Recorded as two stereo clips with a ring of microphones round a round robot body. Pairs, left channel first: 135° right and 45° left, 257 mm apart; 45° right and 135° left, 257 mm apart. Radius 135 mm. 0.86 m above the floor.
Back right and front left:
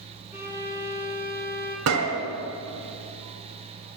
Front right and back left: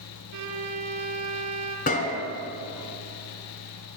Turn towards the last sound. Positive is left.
turn(degrees=15)